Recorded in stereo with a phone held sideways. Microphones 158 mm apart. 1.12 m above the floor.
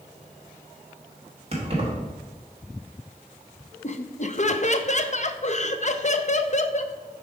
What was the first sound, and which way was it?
Keys jangling, 40° right (ahead or behind).